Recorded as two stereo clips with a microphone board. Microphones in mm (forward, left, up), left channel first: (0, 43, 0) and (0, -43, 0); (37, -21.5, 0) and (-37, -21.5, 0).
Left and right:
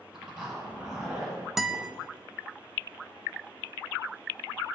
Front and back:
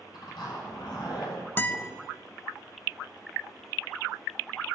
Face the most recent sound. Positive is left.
turn(degrees=-5)